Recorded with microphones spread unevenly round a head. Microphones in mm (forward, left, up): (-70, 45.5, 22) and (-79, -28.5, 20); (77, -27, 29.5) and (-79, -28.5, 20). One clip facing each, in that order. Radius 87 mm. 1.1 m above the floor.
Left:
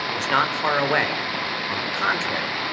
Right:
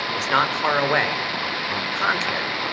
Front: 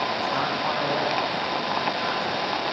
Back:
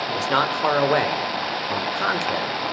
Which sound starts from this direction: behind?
A man speaking, at 0.1 s.